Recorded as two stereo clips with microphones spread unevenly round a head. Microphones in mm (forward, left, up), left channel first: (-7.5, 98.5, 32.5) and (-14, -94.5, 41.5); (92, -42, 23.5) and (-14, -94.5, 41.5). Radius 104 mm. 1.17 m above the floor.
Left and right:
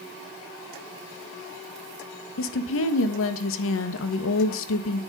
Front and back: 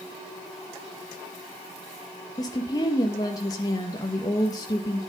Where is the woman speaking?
90° left, 1.5 m.